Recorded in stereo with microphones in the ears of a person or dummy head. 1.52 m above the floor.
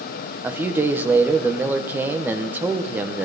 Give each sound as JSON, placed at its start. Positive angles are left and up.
{"t": 0.4, "sound": "a man speaking", "side_deg": -10, "distance_m": 1.0}